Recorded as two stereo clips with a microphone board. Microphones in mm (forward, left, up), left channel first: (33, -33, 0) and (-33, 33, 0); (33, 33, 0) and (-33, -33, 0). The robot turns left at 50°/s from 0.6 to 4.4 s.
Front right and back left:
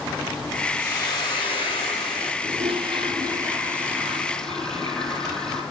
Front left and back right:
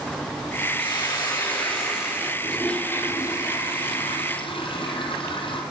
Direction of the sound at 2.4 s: 135° left.